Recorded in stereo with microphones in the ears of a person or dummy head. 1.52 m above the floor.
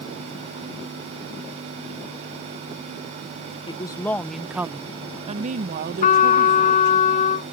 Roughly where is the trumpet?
Left.